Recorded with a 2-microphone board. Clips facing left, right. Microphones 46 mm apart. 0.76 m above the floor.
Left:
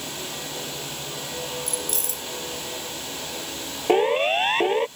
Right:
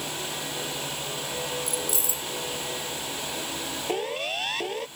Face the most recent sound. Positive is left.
turn(degrees=40)  # may be behind; listen again after turning